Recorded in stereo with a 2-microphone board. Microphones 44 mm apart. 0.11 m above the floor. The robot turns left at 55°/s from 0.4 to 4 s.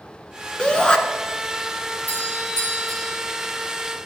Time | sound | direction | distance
0.6 | a shout | 20° left (ahead or behind) | 1.1 m
2.1 | a doorbell | 45° left | 4 m